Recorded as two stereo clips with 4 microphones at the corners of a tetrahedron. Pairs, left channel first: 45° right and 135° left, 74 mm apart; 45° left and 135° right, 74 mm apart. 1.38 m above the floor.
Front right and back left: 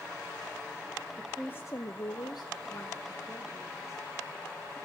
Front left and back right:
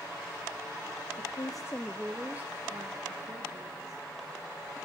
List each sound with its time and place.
1.2 s a woman speaking: 40° left, 0.8 m; by 4.1 s 90° right, 2.5 m